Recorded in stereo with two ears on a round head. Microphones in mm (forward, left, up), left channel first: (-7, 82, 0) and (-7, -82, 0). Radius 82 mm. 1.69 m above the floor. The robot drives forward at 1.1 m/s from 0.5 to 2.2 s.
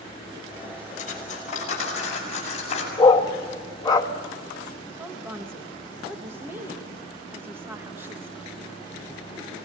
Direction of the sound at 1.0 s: 45° left (ahead or behind).